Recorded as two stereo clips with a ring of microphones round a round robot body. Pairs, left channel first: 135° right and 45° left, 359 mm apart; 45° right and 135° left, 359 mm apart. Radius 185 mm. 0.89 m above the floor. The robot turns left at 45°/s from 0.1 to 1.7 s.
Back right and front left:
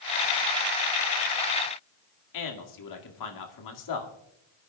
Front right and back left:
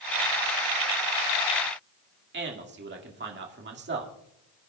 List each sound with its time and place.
2.3 s a man speaking: 165° right, 2.0 m